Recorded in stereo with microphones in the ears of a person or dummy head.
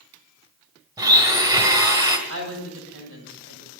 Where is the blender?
20° right (ahead or behind), 2.0 m.